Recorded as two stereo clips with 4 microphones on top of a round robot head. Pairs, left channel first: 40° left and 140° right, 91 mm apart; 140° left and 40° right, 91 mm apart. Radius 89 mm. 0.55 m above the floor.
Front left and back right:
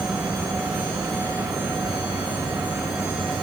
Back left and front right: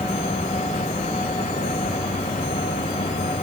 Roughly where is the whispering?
I don't hear whispering.